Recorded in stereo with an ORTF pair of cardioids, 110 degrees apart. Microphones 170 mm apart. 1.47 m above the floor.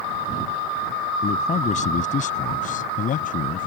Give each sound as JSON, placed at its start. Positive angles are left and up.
{"t": 1.2, "sound": "a man speaking", "azimuth_deg": 45}